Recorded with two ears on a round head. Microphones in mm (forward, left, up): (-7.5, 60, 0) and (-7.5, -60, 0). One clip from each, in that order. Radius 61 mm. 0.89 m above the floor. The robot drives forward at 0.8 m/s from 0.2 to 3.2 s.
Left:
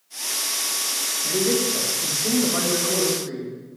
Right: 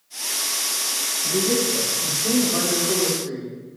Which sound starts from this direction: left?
A man speaking, at 1.2 s.